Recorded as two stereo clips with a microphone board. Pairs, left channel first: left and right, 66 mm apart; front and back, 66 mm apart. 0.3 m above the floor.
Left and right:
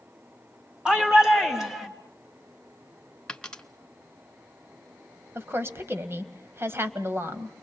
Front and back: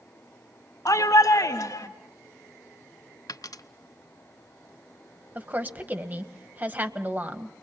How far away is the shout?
About 2 m.